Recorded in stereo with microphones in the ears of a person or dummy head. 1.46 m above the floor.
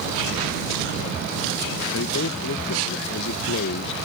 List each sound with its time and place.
1.9 s a man speaking: 65° left (ahead or behind)